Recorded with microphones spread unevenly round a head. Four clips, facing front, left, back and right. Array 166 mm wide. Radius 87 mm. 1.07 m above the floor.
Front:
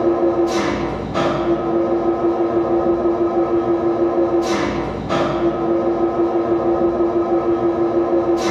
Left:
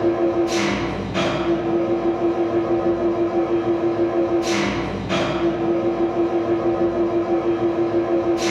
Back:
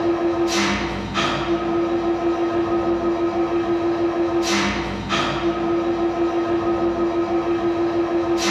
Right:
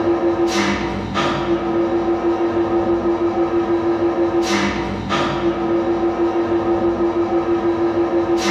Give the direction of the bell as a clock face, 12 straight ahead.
I don't hear a bell.